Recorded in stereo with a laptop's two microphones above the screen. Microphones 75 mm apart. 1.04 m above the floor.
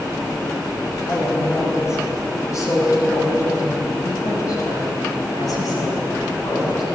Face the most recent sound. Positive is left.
turn(degrees=55)  # may be behind; listen again after turning